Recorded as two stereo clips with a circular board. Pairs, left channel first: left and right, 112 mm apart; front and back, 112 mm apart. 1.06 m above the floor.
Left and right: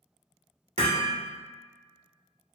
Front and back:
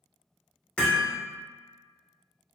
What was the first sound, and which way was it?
Hammering, 80° right.